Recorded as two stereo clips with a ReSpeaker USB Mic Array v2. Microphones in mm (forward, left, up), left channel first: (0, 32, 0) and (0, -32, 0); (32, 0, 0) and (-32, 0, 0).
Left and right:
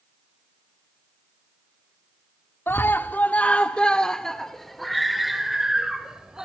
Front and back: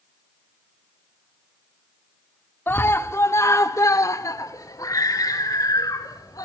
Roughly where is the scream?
Ahead left.